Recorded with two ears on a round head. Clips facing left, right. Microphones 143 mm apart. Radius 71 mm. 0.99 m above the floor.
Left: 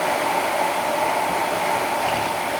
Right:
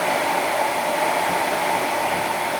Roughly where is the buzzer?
No buzzer in this recording.